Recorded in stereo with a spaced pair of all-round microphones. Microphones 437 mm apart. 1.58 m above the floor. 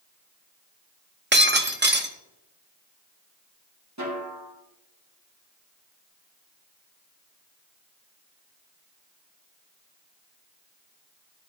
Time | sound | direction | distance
1.3 | breaking glass | 25° right (ahead or behind) | 0.8 m
4.0 | a snare drum | 40° right (ahead or behind) | 2 m